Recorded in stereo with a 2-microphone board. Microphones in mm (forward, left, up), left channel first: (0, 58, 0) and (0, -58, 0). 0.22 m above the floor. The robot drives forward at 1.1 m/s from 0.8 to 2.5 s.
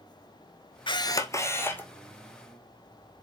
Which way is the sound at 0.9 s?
45° left (ahead or behind).